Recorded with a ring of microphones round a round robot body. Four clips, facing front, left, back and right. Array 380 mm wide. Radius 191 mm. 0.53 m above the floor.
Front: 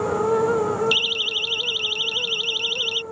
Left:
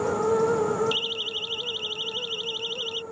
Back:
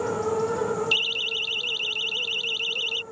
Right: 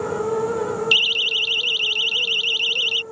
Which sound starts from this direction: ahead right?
A siren, at 0.9 s.